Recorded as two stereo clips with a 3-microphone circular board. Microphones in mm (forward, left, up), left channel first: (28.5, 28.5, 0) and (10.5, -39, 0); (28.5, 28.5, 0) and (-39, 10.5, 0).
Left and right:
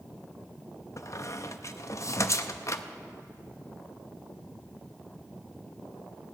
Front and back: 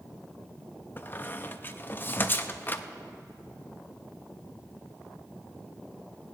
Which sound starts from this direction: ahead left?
A squeak, at 1.0 s.